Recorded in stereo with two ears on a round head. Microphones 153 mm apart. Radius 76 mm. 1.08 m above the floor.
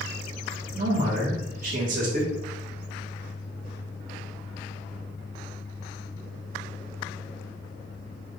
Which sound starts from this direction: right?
A man speaking, at 0.8 s.